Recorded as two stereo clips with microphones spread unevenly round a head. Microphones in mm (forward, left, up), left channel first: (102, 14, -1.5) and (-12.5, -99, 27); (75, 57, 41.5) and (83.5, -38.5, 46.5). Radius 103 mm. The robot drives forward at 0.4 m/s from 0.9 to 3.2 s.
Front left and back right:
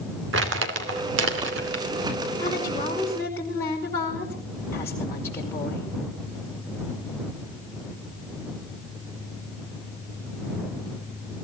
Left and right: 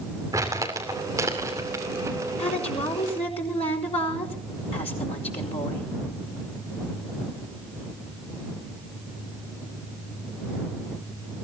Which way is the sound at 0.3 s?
155° right.